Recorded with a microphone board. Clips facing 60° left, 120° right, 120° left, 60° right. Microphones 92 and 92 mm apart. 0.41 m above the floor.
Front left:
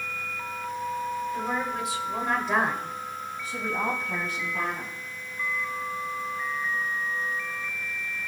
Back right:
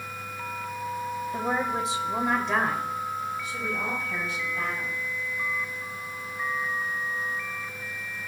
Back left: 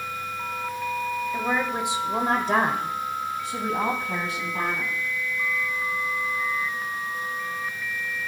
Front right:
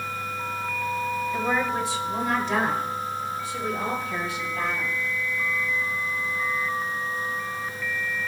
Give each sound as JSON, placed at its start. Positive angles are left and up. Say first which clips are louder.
{"t": 1.3, "sound": "a woman speaking", "louder": "back right 2 dB, front right 1 dB", "azimuth_deg": -150, "distance_m": 1.8}